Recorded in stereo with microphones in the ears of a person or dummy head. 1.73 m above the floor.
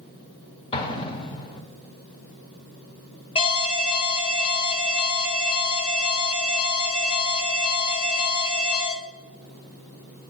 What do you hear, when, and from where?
0.7 s an explosion: 25° left (ahead or behind), 0.8 m
3.4 s an alarm: 30° left (ahead or behind), 0.5 m